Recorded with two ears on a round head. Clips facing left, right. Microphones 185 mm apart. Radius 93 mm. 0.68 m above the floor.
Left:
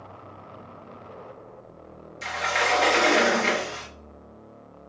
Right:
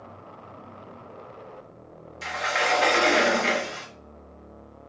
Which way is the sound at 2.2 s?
Centre (ahead or behind).